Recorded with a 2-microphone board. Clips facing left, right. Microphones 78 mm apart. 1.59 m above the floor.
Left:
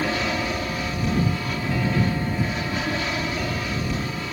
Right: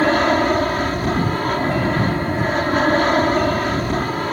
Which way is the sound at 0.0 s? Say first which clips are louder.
Right 9 dB; 50° right (ahead or behind).